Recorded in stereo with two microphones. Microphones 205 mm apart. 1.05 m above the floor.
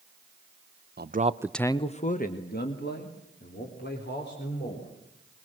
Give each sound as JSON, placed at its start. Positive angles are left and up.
{"t": 1.0, "sound": "a man speaking", "side_deg": -55, "distance_m": 0.8}